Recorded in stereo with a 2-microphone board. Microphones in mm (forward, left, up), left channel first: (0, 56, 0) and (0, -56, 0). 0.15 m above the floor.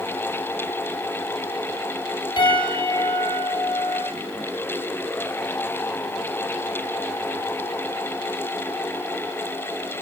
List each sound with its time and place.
2.4 s a piano: 45° left (ahead or behind), 9 m